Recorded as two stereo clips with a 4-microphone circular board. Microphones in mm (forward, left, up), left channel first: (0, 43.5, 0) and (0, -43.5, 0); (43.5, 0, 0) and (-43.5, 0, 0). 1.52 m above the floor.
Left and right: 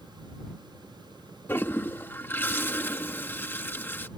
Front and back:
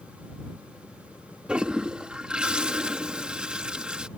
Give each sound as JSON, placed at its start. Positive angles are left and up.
{"t": 1.5, "sound": "a toilet flushing", "azimuth_deg": 115}